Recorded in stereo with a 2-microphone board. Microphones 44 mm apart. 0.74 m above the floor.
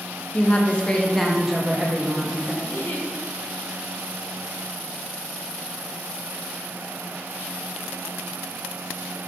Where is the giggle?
50° left (ahead or behind), 1.4 m.